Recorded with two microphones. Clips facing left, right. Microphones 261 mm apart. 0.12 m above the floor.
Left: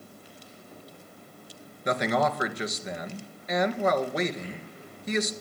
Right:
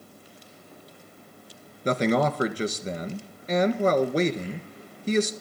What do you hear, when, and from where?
1.9 s a man speaking: 35° right (ahead or behind), 1.6 m